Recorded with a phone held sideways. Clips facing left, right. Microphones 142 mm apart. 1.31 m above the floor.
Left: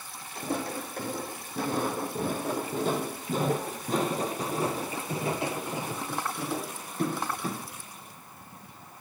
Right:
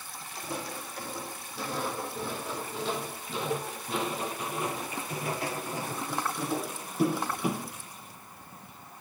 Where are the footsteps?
55° left (ahead or behind), 3.5 m; by 7.7 s 20° right (ahead or behind), 1.5 m.